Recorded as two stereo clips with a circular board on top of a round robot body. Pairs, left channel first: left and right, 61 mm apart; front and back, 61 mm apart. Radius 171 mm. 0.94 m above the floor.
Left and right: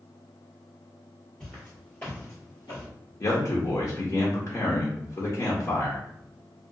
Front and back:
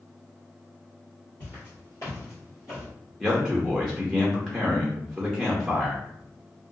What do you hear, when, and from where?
1.4 s footsteps: 10° left, 1.9 m; by 2.9 s 110° left, 1.2 m
3.2 s a man speaking: 85° left, 0.9 m